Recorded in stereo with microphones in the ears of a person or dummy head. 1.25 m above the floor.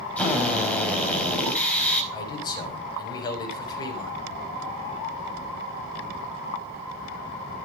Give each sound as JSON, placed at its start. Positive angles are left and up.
{"t": 0.2, "sound": "a drill", "side_deg": 10, "distance_m": 4.5}
{"t": 2.1, "sound": "a man speaking", "side_deg": 25, "distance_m": 7.0}